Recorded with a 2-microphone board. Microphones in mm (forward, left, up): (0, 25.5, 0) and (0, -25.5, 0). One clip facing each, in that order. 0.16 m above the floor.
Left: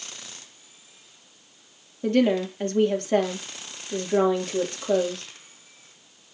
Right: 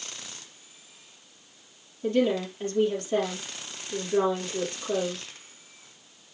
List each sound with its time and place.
2.0 s a woman speaking: 50° left (ahead or behind), 4 m